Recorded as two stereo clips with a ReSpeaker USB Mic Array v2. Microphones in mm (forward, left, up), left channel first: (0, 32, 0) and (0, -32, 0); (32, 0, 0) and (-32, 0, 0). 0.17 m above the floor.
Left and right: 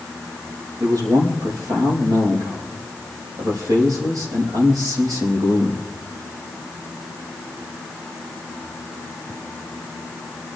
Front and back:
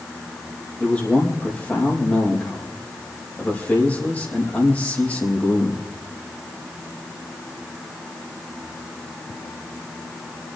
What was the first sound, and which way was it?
A man speaking, 70° right.